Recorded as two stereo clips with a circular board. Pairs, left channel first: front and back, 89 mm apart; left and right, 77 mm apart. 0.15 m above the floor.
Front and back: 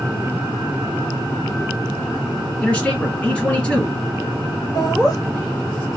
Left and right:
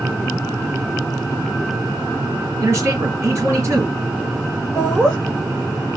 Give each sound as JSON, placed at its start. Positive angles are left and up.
{"t": 2.6, "sound": "a man speaking", "azimuth_deg": -70, "distance_m": 2.0}
{"t": 4.8, "sound": "laughter", "azimuth_deg": 15, "distance_m": 1.9}